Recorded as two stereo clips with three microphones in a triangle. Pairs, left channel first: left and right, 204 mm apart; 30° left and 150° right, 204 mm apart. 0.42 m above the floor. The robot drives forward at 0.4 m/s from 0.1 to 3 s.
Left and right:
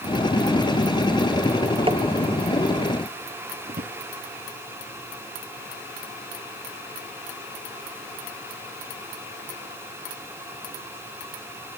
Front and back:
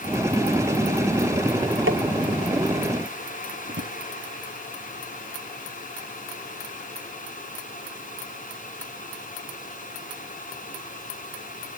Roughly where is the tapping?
Behind right.